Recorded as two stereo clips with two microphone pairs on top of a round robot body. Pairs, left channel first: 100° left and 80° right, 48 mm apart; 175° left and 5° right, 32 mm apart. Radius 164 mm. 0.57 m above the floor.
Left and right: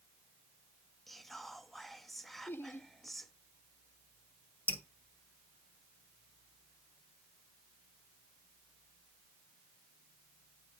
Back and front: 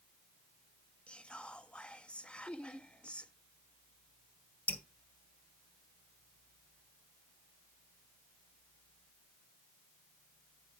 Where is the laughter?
125° left, 2 m.